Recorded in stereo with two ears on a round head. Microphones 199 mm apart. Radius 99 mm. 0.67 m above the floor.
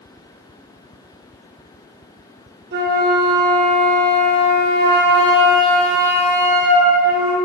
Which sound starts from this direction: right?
A flute, at 2.7 s.